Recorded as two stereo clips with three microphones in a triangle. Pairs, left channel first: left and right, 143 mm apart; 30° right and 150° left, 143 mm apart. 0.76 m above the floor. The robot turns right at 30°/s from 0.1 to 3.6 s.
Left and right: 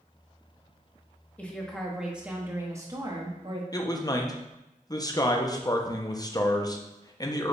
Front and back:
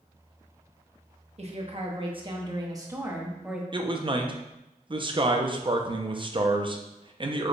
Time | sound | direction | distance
1.4 | a woman speaking | 165° left | 0.9 m
3.7 | a man speaking | 135° left | 0.5 m